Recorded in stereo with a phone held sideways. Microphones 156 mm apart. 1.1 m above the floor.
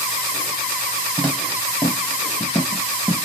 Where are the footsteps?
10° right (ahead or behind), 1.4 m; by 3.1 s 10° left (ahead or behind), 1.2 m.